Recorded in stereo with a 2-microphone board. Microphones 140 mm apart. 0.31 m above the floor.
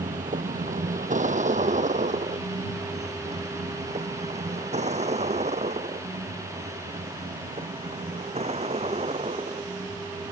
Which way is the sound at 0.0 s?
70° right (ahead or behind).